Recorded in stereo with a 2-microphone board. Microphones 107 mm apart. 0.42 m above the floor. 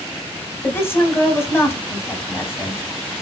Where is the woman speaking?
20° left (ahead or behind), 1.4 m.